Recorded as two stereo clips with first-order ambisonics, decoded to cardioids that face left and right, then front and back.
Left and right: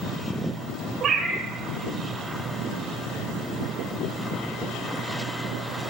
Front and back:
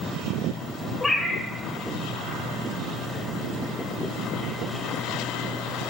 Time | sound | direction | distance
1.0 | a cat meowing | 80° right | 1.1 m